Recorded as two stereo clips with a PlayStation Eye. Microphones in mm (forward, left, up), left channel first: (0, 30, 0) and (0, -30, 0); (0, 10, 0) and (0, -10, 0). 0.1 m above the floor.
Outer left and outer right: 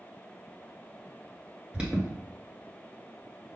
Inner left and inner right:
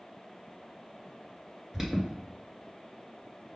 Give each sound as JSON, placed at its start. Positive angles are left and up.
{"t": 1.7, "sound": "an alarm", "side_deg": -15, "distance_m": 1.6}